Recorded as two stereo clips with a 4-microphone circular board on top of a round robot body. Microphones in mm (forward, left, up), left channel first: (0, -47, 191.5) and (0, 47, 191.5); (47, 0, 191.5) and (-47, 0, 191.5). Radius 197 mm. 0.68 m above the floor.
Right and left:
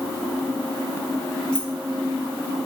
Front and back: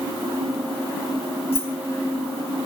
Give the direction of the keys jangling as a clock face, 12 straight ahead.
12 o'clock.